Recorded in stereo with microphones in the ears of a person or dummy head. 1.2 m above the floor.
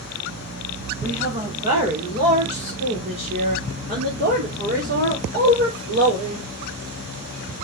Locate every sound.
1.0 s a woman speaking: 30° right (ahead or behind), 5 m; by 6.5 s 70° right (ahead or behind), 4.5 m